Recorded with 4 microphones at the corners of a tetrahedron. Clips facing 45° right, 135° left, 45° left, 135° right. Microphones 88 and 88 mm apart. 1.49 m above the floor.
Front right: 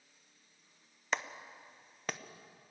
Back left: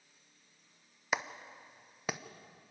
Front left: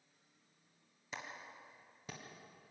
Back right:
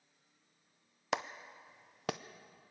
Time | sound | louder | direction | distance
1.1 | a clap | back left 1 dB, back right 10 dB | 140° right | 0.7 m